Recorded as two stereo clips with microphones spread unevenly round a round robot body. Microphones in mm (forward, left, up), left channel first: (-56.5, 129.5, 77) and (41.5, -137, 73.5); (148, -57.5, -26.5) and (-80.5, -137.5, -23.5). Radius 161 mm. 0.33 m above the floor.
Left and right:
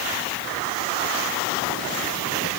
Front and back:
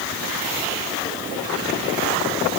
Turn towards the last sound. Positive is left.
No sound to turn to.